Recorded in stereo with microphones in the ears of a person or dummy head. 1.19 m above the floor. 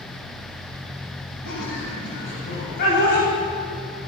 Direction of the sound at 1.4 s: 65° left (ahead or behind).